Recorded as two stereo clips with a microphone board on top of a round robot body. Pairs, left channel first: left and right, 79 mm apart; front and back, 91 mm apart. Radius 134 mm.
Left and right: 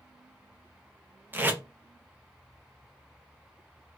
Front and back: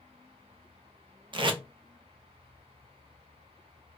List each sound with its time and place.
1.3 s tape being pulled: 155° right, 0.7 m